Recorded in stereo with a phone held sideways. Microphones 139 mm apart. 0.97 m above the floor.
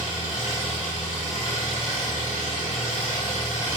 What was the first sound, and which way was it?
An engine running, 65° left (ahead or behind).